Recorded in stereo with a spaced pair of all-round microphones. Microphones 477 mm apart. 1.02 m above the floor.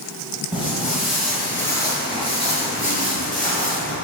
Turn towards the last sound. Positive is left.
turn(degrees=15)  # may be behind; listen again after turning